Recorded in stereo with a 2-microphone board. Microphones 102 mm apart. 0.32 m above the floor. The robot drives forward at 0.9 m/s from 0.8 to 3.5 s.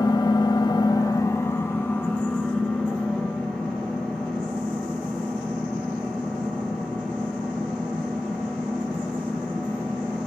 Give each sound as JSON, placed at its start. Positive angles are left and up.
{"t": 0.0, "sound": "an engine running", "side_deg": 50, "distance_m": 0.7}